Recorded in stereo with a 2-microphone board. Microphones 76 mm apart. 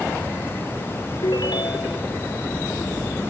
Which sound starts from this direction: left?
A ringtone, at 1.2 s.